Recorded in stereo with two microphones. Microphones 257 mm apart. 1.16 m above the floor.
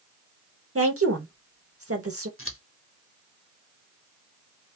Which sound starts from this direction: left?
Scissors, at 2.4 s.